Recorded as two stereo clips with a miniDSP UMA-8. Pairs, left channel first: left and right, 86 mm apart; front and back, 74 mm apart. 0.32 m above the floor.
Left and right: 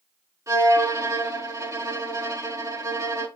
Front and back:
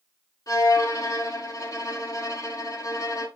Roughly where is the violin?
Ahead right.